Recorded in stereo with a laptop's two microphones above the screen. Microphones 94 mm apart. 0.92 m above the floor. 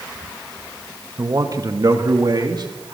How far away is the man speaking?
About 1.4 m.